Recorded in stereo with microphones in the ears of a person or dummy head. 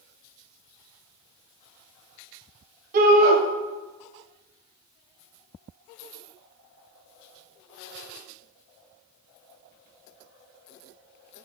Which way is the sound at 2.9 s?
45° right (ahead or behind).